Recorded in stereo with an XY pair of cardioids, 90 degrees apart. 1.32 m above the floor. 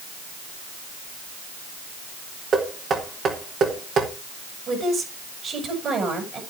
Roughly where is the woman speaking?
Ahead right.